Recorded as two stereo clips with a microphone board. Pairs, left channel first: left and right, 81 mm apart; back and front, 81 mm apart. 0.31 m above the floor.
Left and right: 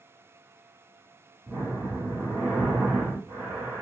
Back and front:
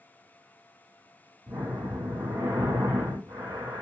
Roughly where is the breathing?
Ahead right.